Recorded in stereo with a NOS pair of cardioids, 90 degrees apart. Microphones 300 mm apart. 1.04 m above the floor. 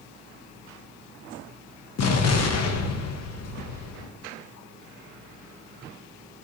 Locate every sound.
2.0 s an explosion: 60° left, 0.9 m